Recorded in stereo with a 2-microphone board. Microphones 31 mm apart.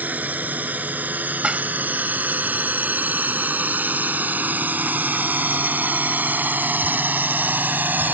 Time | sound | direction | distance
0.0 | a drone | 55° right (ahead or behind) | ?
1.4 | dishes clattering | 35° right (ahead or behind) | ?